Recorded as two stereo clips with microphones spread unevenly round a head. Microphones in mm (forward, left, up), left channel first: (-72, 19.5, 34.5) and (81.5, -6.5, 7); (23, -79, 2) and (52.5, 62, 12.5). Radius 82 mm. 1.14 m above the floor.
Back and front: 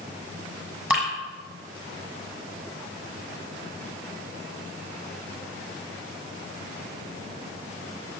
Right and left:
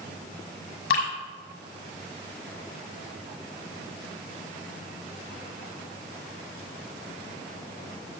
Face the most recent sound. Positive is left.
turn(degrees=-90)